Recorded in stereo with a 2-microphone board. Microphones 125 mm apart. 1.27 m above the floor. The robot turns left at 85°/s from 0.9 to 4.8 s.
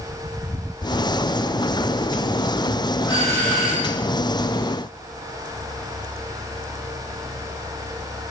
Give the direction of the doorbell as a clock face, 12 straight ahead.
10 o'clock.